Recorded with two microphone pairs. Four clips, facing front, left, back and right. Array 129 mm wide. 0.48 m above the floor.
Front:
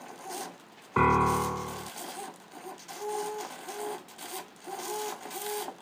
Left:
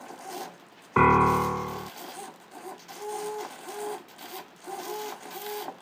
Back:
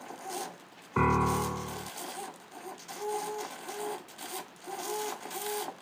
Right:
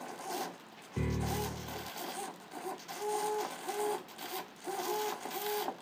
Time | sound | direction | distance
1.0 | a piano | 70° left | ?